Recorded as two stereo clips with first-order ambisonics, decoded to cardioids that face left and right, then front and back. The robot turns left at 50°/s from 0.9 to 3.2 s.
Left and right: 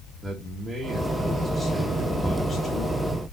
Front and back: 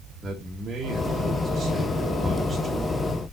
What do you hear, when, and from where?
0.2 s a man speaking: 160° right, 1.1 m; by 3.0 s 95° left, 1.1 m